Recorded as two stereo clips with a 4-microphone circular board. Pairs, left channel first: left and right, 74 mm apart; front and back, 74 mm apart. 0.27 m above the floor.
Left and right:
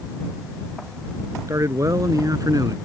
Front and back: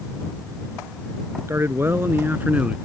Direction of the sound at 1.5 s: 130° right.